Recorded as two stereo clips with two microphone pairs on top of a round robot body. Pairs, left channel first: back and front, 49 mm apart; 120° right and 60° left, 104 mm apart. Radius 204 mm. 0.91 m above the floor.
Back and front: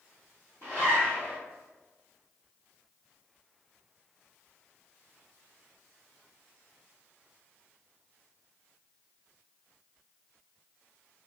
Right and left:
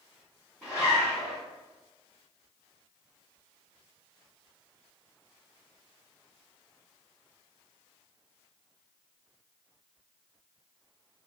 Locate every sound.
0.6 s a zipper: 150° left, 0.5 m